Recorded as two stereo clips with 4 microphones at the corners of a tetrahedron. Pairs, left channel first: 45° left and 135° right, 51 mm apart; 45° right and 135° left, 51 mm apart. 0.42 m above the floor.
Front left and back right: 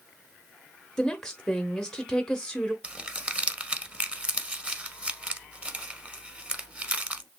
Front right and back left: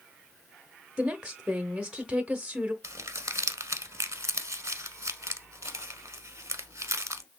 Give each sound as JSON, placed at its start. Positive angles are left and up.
{"t": 1.0, "sound": "a woman speaking", "azimuth_deg": 110, "distance_m": 0.8}
{"t": 2.8, "sound": "crumpling", "azimuth_deg": 160, "distance_m": 0.7}